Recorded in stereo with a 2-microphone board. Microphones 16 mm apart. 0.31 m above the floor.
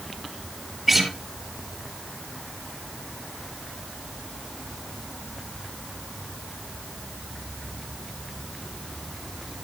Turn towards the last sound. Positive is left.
turn(degrees=-5)  # may be behind; listen again after turning